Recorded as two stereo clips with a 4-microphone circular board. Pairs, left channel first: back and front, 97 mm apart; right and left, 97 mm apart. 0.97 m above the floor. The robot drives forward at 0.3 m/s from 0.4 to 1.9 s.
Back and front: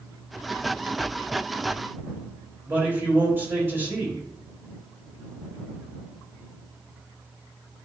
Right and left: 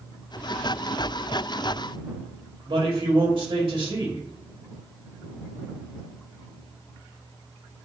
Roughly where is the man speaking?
Left.